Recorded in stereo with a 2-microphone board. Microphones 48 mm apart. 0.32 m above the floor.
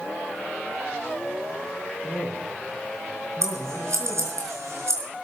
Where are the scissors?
75° right (ahead or behind), 5 m.